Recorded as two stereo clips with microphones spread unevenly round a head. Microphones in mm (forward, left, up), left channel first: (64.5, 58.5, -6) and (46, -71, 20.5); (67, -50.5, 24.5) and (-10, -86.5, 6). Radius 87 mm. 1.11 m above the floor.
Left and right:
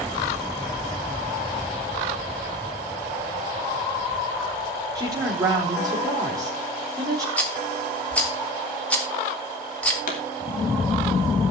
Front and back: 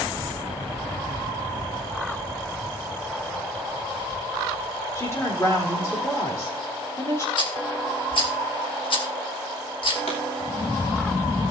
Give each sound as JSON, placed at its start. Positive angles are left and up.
{"t": 5.0, "sound": "a woman speaking", "azimuth_deg": -35, "distance_m": 4.0}
{"t": 7.4, "sound": "a rattle", "azimuth_deg": 5, "distance_m": 3.5}
{"t": 10.1, "sound": "a pop", "azimuth_deg": 70, "distance_m": 3.0}